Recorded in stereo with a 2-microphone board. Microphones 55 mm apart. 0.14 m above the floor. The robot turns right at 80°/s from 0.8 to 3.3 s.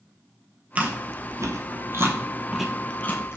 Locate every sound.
0.8 s chewing: 30° right (ahead or behind), 0.7 m; by 3.4 s 50° left (ahead or behind), 0.7 m